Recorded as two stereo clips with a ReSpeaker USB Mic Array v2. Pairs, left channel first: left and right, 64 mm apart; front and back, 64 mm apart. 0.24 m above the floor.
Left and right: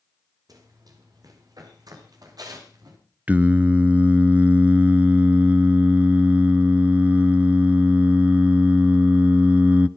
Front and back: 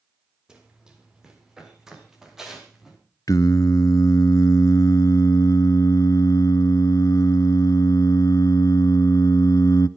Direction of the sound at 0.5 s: 105° right.